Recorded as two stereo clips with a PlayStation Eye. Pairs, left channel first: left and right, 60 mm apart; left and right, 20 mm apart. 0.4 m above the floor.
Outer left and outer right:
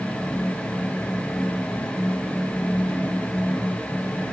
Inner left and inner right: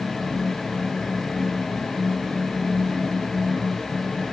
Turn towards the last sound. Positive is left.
No sound to turn to.